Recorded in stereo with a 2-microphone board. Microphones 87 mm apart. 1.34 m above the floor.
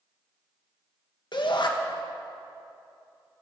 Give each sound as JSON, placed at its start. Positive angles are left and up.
{"t": 1.3, "sound": "a shout", "side_deg": 60, "distance_m": 1.5}